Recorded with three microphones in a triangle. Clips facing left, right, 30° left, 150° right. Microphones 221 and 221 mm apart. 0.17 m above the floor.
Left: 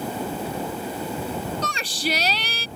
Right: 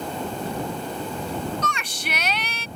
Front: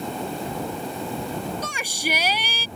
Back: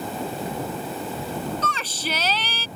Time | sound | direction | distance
1.6 | a shout | 95° left | ?